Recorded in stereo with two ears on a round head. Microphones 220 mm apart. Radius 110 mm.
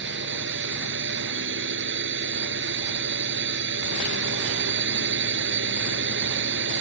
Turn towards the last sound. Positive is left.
turn(degrees=-50)  # may be behind; listen again after turning